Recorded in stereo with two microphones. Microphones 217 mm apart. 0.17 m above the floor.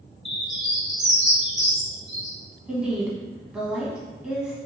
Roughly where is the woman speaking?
Centre.